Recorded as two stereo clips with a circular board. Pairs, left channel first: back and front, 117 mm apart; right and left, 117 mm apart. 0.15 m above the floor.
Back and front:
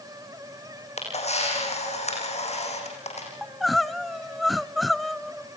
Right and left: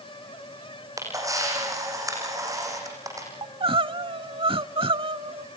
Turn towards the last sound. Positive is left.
turn(degrees=90)